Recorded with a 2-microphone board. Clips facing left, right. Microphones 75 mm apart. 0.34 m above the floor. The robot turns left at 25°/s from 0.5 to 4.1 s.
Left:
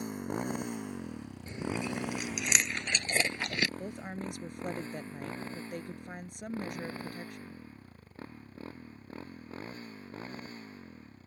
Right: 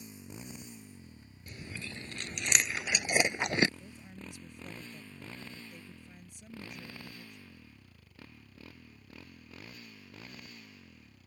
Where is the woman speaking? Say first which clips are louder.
Left 10 dB; 70° left (ahead or behind); by 7.6 s 65° left (ahead or behind).